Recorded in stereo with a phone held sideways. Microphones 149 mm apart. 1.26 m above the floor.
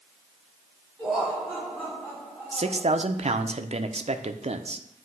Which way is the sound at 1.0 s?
Centre (ahead or behind).